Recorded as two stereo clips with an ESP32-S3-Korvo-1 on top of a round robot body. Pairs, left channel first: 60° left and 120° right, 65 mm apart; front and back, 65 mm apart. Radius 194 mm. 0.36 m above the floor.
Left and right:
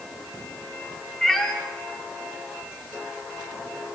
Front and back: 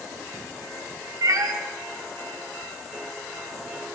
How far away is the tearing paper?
I don't hear tearing paper.